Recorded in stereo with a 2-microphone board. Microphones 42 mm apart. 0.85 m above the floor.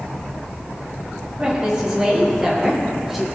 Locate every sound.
1.4 s a woman speaking: 20° right (ahead or behind), 5.5 m; by 3.3 s 5° right (ahead or behind), 3 m